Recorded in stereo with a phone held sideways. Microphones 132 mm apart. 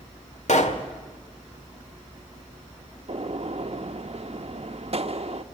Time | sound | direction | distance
0.5 | a pop | 60° left (ahead or behind) | 1.6 m
3.1 | a gunshot | 50° right (ahead or behind) | 0.9 m